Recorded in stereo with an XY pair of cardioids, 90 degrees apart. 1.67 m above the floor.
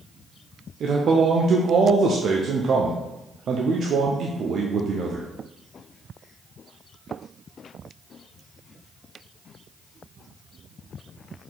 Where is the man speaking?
60° right, 0.6 m.